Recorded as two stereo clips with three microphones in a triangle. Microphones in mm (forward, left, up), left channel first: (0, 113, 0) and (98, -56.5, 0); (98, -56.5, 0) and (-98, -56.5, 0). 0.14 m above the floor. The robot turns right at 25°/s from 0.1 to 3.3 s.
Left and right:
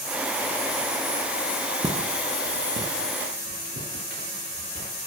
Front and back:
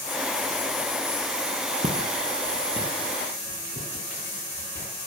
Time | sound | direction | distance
1.8 | footsteps | 130° right | 1.1 m